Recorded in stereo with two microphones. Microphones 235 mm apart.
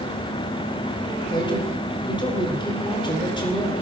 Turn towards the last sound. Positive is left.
turn(degrees=20)  # may be behind; listen again after turning